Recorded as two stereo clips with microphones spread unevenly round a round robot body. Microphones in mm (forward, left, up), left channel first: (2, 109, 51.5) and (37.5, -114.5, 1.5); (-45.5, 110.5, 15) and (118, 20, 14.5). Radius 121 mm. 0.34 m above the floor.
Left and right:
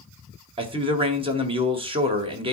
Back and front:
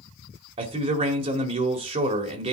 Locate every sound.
0.6 s a man speaking: 65° right, 1.8 m